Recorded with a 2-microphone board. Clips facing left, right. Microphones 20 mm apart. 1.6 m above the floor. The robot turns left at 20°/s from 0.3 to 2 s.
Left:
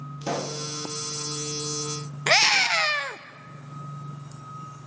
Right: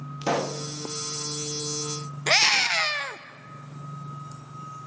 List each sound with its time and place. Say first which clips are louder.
0.2 s a pop: right 3 dB; 35° right (ahead or behind), 0.7 m; by 0.6 s 30° right (ahead or behind), 0.7 m
2.3 s a scream: left 1 dB; 25° left (ahead or behind), 0.8 m